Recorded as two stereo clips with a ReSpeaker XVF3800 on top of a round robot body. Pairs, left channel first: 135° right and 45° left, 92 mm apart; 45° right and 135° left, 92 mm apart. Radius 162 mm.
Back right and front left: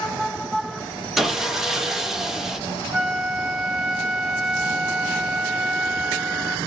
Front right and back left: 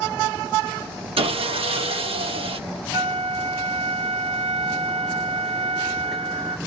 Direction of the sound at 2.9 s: 125° left.